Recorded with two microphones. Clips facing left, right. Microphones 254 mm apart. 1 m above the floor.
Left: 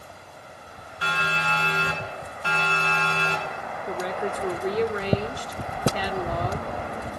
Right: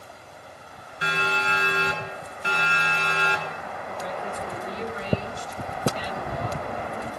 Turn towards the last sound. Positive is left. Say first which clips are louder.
# left 6 dB
turn(degrees=80)